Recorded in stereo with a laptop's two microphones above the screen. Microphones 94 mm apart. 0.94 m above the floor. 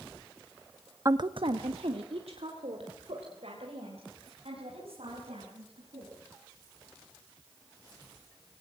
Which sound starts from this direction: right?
A woman speaking, at 1.1 s.